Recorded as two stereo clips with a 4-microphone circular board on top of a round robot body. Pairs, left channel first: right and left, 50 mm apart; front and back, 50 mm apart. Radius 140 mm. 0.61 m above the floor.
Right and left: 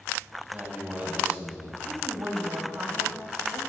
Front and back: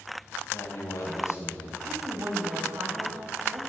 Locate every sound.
0.5 s a man speaking: 30° left, 4.5 m
1.8 s a woman speaking: 135° left, 4 m